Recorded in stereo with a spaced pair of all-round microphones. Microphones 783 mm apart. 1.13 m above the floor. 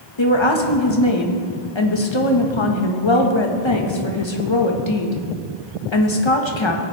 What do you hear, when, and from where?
0.2 s a woman speaking: 35° left (ahead or behind), 1.5 m